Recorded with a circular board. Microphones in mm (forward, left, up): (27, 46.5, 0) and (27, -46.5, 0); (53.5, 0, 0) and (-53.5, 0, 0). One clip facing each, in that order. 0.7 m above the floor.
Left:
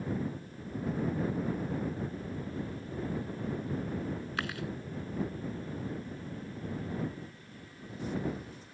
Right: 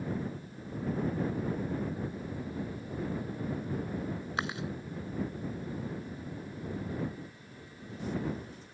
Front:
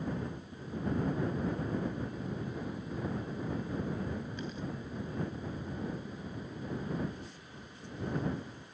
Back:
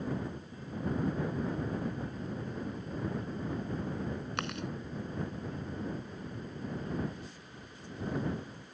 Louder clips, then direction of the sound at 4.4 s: Right 4 dB, back 2 dB; 160° right.